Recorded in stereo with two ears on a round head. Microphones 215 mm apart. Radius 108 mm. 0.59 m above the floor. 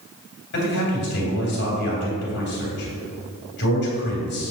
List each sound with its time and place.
0.5 s a man speaking: 50° left (ahead or behind), 2.5 m